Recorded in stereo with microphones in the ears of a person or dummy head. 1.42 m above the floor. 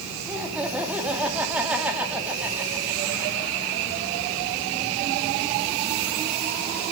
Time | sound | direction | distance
0.3 | laughter | 5° right (ahead or behind) | 2.5 m